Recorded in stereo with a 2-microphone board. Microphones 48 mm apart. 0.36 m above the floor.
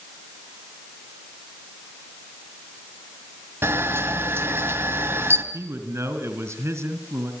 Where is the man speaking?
70° right (ahead or behind), 3.5 m.